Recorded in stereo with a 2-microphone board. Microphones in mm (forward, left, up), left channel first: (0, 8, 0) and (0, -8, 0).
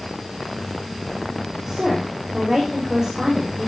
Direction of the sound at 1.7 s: 30° right (ahead or behind).